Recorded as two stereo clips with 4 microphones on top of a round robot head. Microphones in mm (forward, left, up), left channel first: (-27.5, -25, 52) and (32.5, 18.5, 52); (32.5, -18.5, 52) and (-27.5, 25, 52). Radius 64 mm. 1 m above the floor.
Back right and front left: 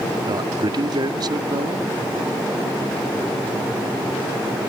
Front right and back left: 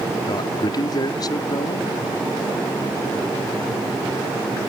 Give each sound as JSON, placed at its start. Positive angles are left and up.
{"t": 0.3, "sound": "a man speaking", "azimuth_deg": 5}